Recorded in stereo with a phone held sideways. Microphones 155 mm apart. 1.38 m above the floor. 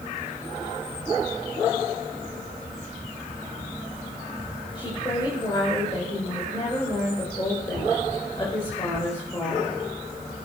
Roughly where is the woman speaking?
Left.